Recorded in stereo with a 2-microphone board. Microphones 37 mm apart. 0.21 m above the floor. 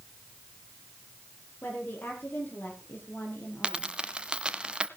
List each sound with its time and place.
1.6 s a woman speaking: 50° left (ahead or behind), 7 m; by 3.9 s 65° left (ahead or behind), 5 m
3.6 s a dropped coin: 20° right (ahead or behind), 0.9 m